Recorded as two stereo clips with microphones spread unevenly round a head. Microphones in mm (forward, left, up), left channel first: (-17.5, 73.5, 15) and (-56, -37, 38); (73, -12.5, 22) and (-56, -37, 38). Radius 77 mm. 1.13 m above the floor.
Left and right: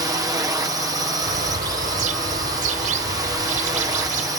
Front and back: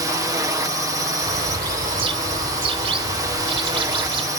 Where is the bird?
120° right.